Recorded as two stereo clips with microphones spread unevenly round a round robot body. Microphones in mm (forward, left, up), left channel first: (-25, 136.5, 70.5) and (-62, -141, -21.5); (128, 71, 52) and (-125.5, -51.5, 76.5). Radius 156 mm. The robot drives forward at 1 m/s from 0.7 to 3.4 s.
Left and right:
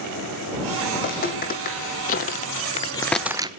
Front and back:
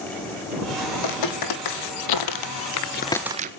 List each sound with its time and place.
0.9 s footsteps: 25° left, 3.5 m; by 3.5 s 170° left, 0.7 m